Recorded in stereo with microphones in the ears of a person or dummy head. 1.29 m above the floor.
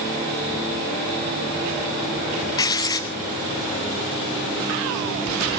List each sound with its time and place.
2.6 s writing: 20° left (ahead or behind), 0.7 m